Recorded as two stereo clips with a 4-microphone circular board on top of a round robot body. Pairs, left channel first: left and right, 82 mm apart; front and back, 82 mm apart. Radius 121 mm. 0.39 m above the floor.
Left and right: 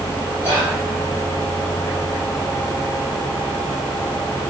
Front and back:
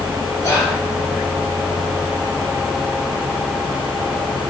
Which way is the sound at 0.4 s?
35° left.